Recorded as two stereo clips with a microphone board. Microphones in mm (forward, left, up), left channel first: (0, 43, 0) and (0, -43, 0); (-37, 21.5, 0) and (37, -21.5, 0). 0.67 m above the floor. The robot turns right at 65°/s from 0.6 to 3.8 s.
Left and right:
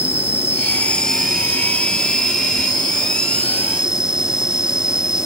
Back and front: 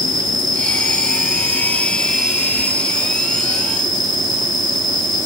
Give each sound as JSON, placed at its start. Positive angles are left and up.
{"t": 0.0, "sound": "an insect", "azimuth_deg": 140}